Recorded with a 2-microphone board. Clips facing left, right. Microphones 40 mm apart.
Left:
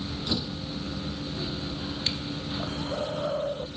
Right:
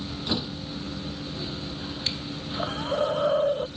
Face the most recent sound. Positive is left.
turn(degrees=-55)  # may be behind; listen again after turning